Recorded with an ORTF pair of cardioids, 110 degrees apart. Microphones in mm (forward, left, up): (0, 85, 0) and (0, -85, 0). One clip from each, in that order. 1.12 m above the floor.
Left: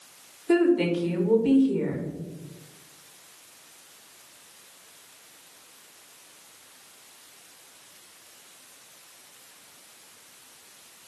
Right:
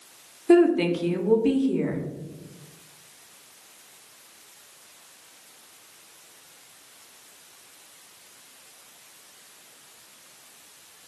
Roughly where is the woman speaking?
Ahead.